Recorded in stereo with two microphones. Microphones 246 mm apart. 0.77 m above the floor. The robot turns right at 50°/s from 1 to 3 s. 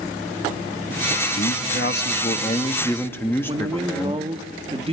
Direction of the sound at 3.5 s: 25° right (ahead or behind).